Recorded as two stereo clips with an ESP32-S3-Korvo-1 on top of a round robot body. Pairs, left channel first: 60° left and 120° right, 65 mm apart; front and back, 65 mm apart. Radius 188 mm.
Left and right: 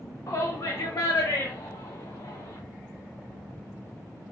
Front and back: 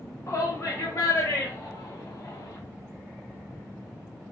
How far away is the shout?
About 1.7 m.